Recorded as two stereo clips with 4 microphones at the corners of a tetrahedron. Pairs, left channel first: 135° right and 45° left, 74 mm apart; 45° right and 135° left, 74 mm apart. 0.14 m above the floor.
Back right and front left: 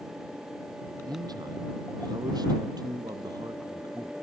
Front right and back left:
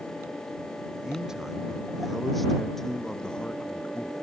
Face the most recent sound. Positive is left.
turn(degrees=25)